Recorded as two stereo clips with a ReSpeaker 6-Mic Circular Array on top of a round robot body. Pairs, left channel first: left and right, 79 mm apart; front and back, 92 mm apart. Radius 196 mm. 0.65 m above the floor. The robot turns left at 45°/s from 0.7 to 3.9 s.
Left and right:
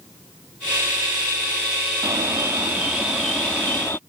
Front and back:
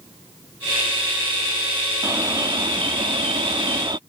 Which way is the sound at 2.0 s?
125° right.